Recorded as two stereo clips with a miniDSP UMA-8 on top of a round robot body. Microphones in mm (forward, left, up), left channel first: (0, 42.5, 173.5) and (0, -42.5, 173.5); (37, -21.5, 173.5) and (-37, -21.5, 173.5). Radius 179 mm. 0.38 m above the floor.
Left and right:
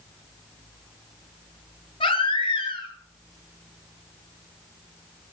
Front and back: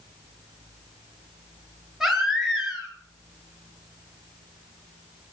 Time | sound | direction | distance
2.0 | a baby crying | 95° left | 4.5 m